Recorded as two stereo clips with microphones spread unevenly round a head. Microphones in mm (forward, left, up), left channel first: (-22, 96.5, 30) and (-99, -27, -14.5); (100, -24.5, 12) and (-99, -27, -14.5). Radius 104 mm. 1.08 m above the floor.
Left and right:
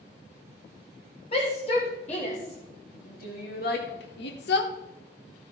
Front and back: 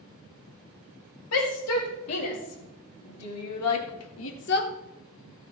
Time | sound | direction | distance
1.3 | a shout | 5° right | 4.5 m